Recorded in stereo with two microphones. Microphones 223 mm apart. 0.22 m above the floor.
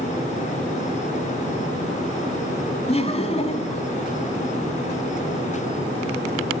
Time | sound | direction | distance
2.9 | laughter | 30° left (ahead or behind) | 2 m